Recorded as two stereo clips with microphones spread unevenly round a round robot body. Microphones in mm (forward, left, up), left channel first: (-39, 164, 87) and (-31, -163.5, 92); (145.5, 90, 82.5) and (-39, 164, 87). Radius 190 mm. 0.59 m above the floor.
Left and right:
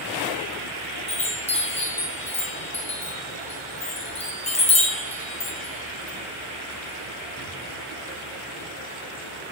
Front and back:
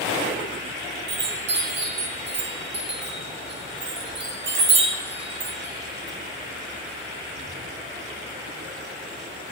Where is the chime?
160° left, 1.2 m.